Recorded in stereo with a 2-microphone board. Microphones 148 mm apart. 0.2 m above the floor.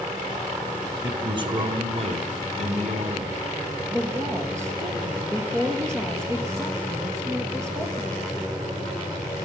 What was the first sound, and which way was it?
A man speaking, 30° right (ahead or behind).